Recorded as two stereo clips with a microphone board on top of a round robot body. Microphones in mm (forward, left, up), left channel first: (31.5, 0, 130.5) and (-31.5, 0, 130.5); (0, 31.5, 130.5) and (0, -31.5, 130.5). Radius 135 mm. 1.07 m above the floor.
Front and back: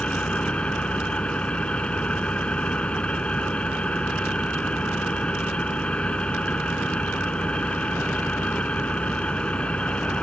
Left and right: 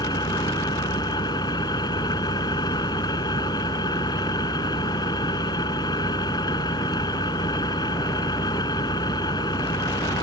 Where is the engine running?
75° left.